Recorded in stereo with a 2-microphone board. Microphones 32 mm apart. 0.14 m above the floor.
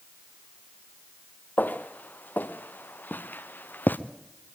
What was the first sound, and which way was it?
Footsteps, 65° left (ahead or behind).